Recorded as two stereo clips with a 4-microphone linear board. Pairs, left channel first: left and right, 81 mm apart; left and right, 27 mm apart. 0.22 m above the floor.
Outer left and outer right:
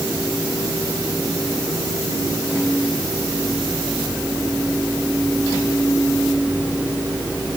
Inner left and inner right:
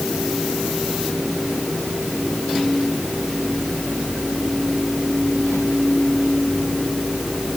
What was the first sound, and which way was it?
Only background noise.